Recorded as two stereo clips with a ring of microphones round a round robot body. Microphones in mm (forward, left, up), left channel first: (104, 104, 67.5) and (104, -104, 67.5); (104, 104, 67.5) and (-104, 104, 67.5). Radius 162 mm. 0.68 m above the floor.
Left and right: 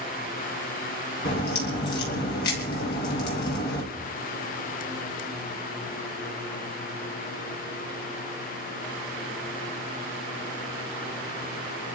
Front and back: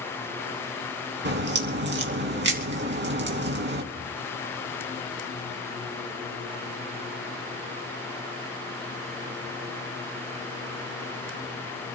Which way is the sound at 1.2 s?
145° left.